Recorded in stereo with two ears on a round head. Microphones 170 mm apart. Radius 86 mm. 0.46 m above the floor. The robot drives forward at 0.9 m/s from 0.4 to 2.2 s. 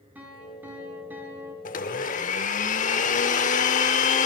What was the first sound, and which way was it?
A piano, 10° right (ahead or behind).